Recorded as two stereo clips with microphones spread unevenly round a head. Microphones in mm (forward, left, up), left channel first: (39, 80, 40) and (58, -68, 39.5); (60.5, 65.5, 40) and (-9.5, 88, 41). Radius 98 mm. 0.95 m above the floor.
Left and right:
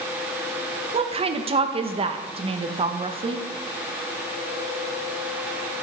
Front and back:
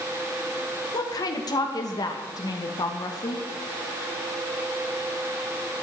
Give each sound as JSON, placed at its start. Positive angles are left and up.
{"t": 0.9, "sound": "a woman speaking", "azimuth_deg": -35, "distance_m": 0.8}